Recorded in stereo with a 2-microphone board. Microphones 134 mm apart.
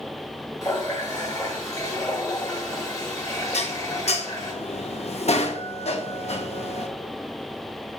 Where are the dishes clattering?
55° left (ahead or behind), 1.0 m.